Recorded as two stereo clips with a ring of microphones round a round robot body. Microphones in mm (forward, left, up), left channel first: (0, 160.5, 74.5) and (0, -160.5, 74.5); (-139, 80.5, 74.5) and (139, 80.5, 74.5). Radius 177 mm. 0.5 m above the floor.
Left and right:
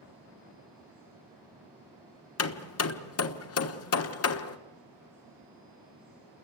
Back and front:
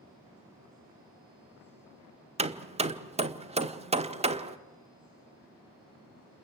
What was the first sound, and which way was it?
Hammering, 65° left.